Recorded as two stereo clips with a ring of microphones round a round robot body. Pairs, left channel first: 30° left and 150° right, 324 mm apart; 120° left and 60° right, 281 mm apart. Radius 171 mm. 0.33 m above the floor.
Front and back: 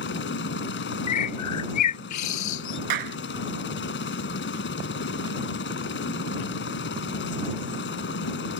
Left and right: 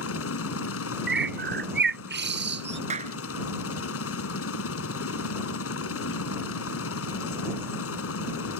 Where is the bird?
10° right.